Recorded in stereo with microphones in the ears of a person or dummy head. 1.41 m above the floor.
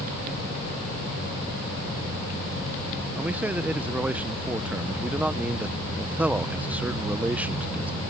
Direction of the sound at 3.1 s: 10° right (ahead or behind).